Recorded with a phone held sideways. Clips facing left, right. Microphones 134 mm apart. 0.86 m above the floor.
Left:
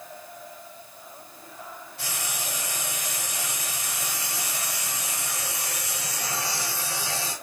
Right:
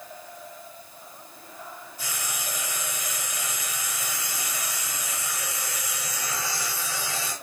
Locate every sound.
2.0 s frying: 80° left, 5 m